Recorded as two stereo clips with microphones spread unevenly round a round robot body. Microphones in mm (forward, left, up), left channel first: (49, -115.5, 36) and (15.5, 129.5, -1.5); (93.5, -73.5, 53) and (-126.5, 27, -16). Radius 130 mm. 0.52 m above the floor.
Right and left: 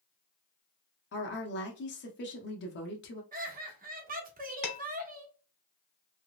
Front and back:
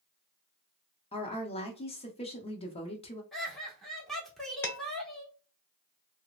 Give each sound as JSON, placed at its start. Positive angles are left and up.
{"t": 1.1, "sound": "a woman speaking", "azimuth_deg": -100, "distance_m": 0.9}
{"t": 3.3, "sound": "laughter", "azimuth_deg": 80, "distance_m": 0.9}
{"t": 4.6, "sound": "dishes clattering", "azimuth_deg": -110, "distance_m": 1.3}